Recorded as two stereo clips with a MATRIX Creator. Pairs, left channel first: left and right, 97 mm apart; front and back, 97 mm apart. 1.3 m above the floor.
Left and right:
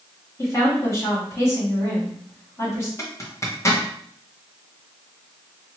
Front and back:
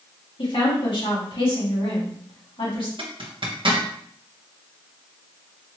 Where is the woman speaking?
30° left, 2 m.